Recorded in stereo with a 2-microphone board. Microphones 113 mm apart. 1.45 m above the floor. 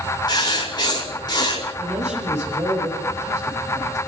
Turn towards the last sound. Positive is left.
turn(degrees=-90)